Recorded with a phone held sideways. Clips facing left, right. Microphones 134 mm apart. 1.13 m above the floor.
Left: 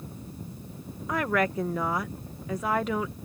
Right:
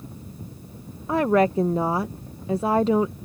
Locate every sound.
1.1 s a woman speaking: 30° right (ahead or behind)